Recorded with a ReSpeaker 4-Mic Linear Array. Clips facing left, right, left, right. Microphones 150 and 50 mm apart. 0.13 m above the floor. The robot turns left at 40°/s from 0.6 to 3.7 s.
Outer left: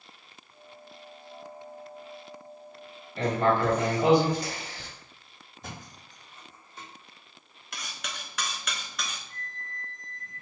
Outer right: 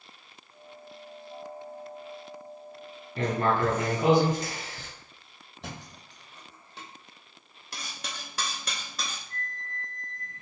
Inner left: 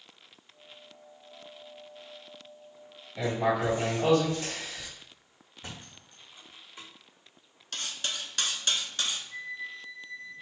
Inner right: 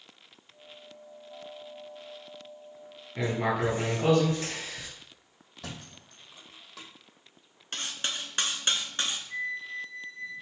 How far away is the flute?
About 1.3 m.